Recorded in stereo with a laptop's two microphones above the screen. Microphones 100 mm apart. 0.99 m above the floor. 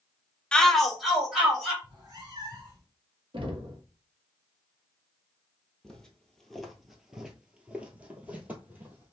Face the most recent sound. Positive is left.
turn(degrees=-15)  # may be behind; listen again after turning